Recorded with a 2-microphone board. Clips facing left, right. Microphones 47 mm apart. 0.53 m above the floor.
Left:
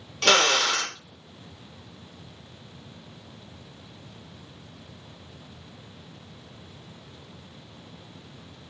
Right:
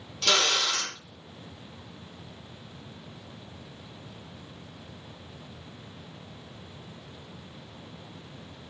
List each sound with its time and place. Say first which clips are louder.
0.2 s a drill: left 5 dB; 55° left (ahead or behind), 0.6 m